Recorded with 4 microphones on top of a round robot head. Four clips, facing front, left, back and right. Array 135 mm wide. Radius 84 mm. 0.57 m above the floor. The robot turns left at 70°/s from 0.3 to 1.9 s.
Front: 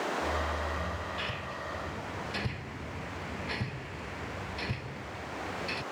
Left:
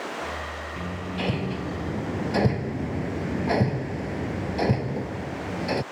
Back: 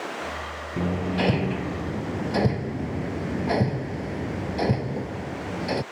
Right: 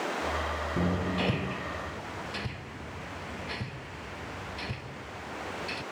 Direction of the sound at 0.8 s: 145° right.